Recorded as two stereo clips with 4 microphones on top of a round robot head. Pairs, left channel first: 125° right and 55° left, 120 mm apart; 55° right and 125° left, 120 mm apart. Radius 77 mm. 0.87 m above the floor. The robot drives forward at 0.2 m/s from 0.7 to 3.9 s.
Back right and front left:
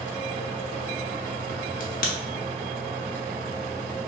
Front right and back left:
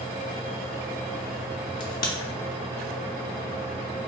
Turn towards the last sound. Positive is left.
turn(degrees=-135)